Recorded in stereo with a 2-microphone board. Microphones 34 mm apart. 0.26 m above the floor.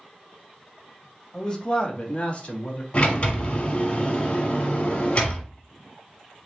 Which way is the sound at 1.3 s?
25° left (ahead or behind).